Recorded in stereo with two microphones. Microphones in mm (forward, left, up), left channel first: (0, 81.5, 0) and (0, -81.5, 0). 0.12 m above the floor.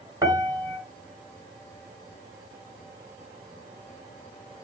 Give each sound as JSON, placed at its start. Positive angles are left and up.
{"t": 0.2, "sound": "a piano", "side_deg": -20, "distance_m": 1.2}